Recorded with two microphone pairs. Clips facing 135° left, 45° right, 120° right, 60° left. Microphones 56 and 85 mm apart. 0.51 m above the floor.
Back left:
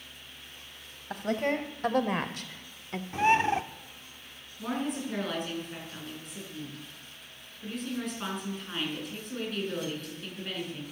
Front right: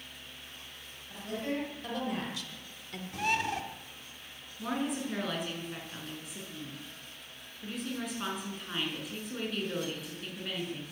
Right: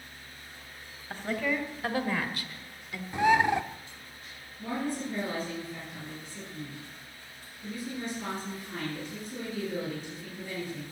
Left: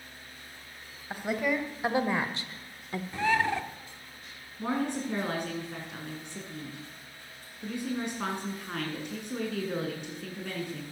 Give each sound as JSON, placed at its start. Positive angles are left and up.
{"t": 1.1, "sound": "a woman speaking", "azimuth_deg": 135, "distance_m": 2.5}
{"t": 3.1, "sound": "a bird", "azimuth_deg": 170, "distance_m": 0.8}
{"t": 4.6, "sound": "a woman speaking", "azimuth_deg": 45, "distance_m": 6.5}